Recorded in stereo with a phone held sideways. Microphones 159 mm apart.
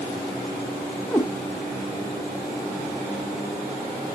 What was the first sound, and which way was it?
A cat meowing, 10° left (ahead or behind).